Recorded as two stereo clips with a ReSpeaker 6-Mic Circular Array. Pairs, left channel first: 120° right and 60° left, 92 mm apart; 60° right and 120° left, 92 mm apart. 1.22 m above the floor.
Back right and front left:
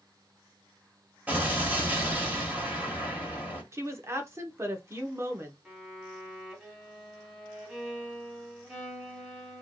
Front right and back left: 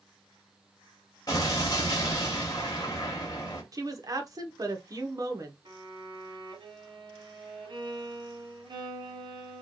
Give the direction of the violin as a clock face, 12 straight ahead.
7 o'clock.